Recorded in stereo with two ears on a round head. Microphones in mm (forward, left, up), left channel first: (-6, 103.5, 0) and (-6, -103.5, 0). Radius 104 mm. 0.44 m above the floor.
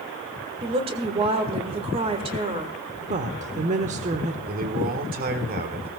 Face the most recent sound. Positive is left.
turn(degrees=-40)  # may be behind; listen again after turning